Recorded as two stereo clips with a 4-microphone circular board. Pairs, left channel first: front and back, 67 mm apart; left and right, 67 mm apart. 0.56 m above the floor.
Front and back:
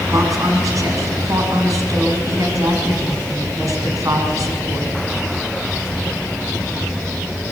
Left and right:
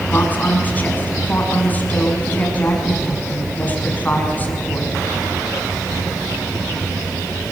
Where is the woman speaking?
155° left, 6 m.